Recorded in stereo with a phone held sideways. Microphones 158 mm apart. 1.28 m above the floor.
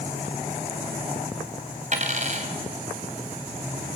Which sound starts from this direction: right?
A dropped coin, at 1.9 s.